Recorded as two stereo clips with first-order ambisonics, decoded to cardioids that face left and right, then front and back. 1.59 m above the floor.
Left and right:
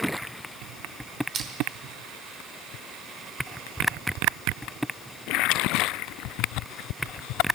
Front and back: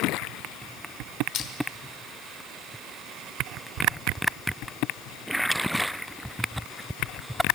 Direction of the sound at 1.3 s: 35° right.